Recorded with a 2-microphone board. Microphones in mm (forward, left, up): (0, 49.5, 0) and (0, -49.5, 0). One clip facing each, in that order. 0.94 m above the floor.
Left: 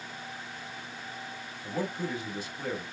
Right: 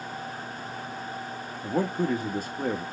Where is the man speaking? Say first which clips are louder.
Right 7 dB; 50° right (ahead or behind), 1.4 m.